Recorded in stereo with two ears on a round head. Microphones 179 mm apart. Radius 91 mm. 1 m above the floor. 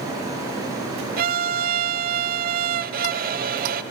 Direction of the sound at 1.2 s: 50° right (ahead or behind).